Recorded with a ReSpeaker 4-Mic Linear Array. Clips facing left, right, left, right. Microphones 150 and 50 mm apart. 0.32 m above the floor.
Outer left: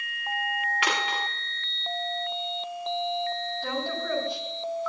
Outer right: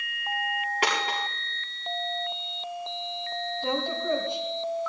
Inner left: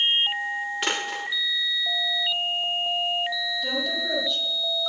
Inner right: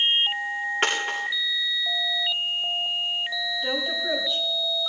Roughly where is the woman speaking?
Right.